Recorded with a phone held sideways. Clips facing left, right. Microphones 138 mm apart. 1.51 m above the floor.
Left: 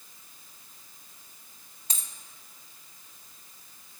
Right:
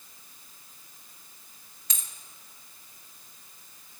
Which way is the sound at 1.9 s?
30° left (ahead or behind).